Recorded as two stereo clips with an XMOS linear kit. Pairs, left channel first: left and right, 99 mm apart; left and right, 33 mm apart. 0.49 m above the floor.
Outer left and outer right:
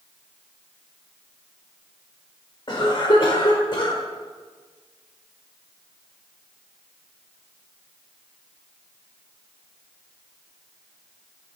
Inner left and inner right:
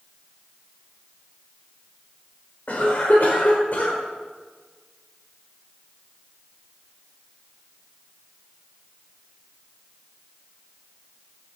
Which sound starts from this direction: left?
A cough, at 2.7 s.